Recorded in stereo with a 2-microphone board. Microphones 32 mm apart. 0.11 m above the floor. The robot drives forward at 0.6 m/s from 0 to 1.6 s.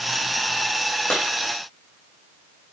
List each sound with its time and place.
1.1 s a clap: 55° left (ahead or behind), 4 m